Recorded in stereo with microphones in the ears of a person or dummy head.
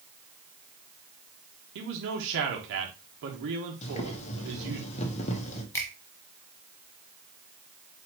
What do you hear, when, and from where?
1.8 s a man speaking: 65° right (ahead or behind), 1.0 m
3.8 s boiling: 35° left (ahead or behind), 1.0 m
5.7 s a finger snap: 10° left (ahead or behind), 0.9 m